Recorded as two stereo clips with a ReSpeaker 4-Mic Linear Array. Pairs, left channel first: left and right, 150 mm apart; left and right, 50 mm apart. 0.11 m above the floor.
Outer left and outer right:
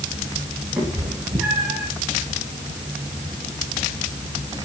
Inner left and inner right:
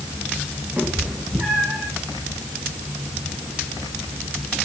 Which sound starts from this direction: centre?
A cat meowing, at 0.8 s.